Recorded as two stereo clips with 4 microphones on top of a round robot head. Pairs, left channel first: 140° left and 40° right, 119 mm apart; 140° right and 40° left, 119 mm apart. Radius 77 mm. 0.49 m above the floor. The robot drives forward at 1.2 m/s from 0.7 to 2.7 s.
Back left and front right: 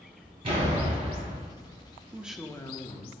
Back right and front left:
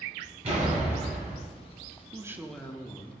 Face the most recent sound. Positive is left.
turn(degrees=160)